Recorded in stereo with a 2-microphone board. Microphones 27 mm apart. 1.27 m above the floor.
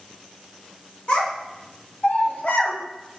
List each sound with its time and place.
1.1 s a child speaking: 50° left (ahead or behind), 1.2 m; by 2.8 s 65° left (ahead or behind), 0.9 m